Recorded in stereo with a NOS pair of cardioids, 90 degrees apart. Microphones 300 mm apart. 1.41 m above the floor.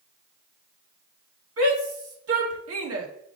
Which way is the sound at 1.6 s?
55° right.